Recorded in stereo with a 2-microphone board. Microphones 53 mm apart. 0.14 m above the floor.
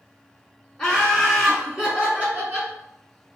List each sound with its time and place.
0.8 s laughter: 10° left (ahead or behind), 1.4 m; by 2.7 s 35° right (ahead or behind), 1.5 m